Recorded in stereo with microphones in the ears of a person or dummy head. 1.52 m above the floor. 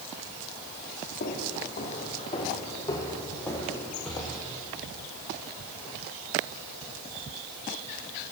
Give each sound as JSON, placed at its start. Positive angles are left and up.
{"t": 1.2, "sound": "footsteps", "side_deg": 55, "distance_m": 3.5}